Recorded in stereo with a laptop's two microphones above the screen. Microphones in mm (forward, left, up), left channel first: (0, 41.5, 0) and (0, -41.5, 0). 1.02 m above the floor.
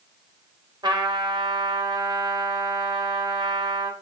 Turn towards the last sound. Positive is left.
turn(degrees=-65)  # may be behind; listen again after turning